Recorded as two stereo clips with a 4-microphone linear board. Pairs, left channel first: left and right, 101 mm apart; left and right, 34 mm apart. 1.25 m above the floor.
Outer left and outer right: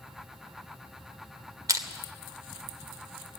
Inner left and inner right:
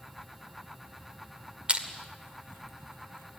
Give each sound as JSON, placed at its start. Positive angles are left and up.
{"t": 1.7, "sound": "crushing", "side_deg": -35, "distance_m": 1.8}